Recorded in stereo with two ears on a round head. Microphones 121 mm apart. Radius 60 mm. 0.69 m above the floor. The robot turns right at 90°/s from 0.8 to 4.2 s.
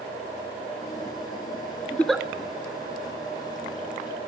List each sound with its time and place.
1.9 s a giggle: 20° left (ahead or behind), 1.6 m; by 2.2 s 10° right (ahead or behind), 1.6 m